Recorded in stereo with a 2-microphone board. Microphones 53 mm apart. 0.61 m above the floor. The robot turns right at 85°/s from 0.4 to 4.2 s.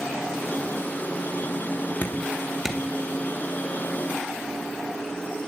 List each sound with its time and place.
2.0 s dripping: 45° left (ahead or behind), 2 m; by 2.8 s 15° right (ahead or behind), 2 m